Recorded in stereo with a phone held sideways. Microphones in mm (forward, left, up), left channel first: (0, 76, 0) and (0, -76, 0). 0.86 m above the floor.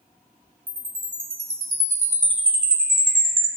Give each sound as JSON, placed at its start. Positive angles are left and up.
{"t": 0.7, "sound": "a chime", "side_deg": -65, "distance_m": 2.5}